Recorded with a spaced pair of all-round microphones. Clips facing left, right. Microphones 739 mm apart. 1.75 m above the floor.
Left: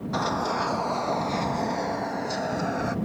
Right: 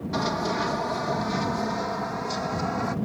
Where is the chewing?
I don't hear chewing.